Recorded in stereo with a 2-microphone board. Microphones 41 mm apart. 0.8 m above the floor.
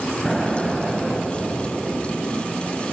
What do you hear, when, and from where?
0.2 s an explosion: 10° left (ahead or behind), 3.5 m